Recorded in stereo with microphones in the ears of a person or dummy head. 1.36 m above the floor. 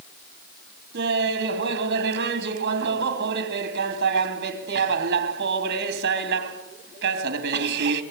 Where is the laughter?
75° right (ahead or behind), 3 m.